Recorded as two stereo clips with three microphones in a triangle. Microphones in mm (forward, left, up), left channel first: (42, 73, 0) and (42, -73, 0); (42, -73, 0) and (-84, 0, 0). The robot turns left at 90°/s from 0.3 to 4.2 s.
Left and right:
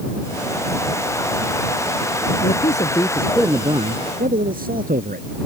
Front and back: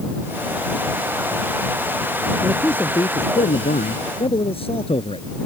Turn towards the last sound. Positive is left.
turn(degrees=-80)